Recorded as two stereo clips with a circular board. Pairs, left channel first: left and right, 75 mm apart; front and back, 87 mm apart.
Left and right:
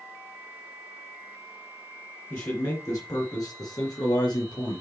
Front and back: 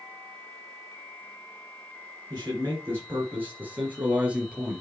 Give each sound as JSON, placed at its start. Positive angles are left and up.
{"t": 2.3, "sound": "a man speaking", "azimuth_deg": 130, "distance_m": 3.0}